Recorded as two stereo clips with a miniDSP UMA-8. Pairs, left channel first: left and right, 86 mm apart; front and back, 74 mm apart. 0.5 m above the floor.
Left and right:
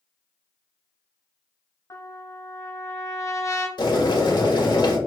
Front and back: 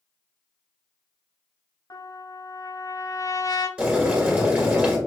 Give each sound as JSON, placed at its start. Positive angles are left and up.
{"t": 1.9, "sound": "a trumpet", "azimuth_deg": 40, "distance_m": 0.9}
{"t": 3.8, "sound": "boiling", "azimuth_deg": 105, "distance_m": 2.0}